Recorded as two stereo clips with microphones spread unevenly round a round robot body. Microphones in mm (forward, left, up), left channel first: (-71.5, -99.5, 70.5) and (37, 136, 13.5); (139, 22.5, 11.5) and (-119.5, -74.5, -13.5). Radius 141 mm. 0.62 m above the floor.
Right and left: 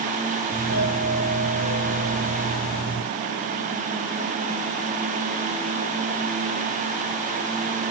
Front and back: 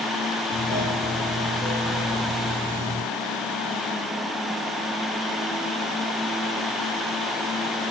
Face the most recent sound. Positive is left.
turn(degrees=-70)